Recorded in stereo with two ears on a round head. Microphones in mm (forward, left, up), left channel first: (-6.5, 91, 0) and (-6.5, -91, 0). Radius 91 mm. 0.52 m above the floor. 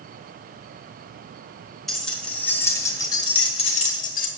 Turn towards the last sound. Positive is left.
turn(degrees=45)  # may be behind; listen again after turning